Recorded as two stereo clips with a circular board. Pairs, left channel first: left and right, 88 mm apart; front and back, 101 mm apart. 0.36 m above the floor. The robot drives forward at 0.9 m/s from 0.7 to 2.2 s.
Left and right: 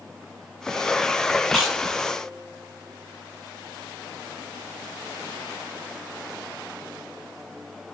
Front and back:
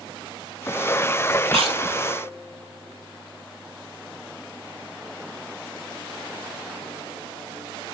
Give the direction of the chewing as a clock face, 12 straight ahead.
6 o'clock.